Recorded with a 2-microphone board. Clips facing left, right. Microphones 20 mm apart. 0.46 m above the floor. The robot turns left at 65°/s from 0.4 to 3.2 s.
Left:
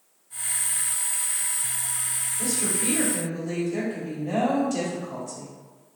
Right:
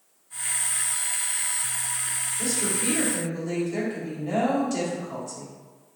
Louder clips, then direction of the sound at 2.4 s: Even; 120° right.